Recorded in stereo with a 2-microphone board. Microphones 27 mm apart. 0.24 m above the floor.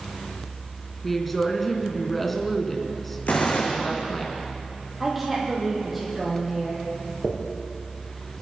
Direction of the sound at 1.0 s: 5° left (ahead or behind).